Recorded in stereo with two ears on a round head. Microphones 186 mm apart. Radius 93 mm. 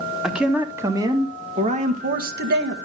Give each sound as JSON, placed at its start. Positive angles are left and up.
{"t": 0.2, "sound": "a man speaking", "side_deg": -5, "distance_m": 2.0}